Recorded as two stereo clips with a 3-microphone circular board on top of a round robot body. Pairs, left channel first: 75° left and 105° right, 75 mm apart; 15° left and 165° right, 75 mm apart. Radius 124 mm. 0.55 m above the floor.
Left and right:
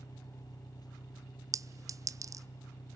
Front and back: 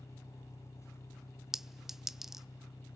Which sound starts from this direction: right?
A clink, at 1.5 s.